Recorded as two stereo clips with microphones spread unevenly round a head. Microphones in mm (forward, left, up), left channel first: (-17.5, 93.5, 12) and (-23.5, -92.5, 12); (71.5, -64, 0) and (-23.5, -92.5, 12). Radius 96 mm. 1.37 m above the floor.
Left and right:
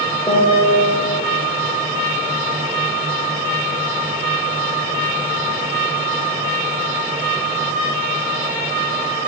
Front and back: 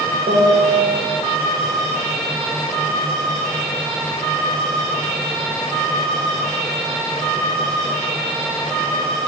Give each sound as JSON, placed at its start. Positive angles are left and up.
{"t": 0.3, "sound": "a piano", "azimuth_deg": 160, "distance_m": 1.2}